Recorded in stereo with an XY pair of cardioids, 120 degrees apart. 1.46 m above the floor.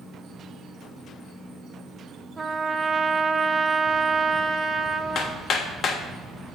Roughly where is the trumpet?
Ahead right.